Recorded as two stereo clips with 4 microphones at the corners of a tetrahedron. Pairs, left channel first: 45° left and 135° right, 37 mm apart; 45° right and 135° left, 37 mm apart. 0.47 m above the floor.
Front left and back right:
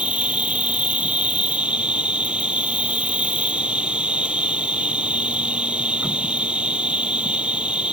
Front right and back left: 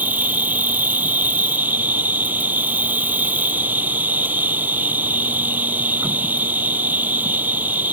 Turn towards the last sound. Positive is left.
turn(degrees=170)